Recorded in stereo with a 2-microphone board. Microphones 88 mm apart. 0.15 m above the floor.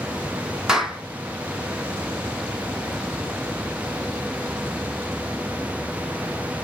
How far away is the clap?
About 1.1 m.